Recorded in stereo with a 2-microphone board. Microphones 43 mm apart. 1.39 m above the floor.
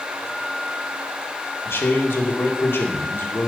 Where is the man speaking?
70° left (ahead or behind), 2 m.